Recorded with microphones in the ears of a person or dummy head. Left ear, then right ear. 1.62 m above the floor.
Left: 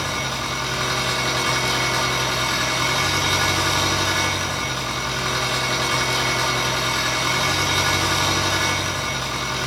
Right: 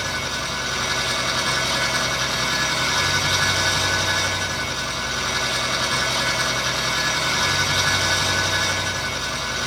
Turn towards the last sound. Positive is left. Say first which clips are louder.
# even
turn(degrees=10)  # may be behind; listen again after turning